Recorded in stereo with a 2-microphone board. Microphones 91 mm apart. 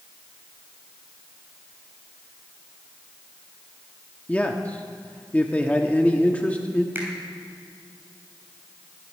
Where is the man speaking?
15° left (ahead or behind), 1.0 m.